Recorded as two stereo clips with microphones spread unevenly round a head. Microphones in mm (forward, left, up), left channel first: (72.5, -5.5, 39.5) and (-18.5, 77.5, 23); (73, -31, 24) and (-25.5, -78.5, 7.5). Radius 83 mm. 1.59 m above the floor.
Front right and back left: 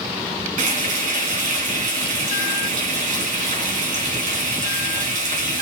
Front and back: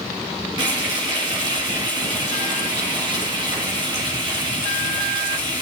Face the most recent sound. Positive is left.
turn(degrees=145)